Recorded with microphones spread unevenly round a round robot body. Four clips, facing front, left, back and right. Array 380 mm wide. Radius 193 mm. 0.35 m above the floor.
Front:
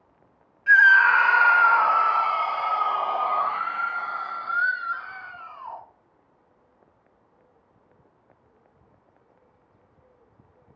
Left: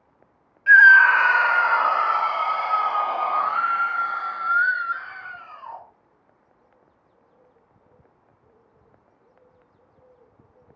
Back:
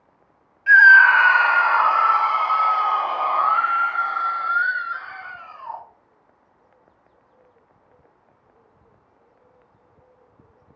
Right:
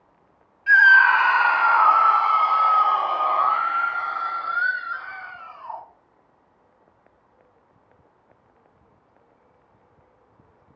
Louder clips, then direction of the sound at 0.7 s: Left 2 dB, back 5 dB; 75° left.